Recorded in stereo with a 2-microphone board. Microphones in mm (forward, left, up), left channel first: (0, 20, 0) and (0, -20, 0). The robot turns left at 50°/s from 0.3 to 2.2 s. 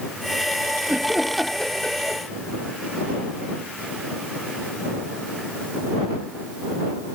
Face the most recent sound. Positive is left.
turn(degrees=145)